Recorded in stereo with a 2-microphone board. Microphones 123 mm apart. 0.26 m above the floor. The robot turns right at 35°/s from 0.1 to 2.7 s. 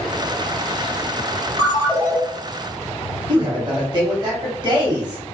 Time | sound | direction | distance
1.6 | a ringtone | 20° right (ahead or behind) | 0.9 m
3.3 | a man speaking | 35° right (ahead or behind) | 1.1 m